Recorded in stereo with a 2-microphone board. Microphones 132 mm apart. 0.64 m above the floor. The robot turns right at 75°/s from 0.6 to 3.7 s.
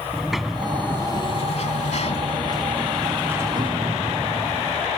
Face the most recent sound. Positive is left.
turn(degrees=-130)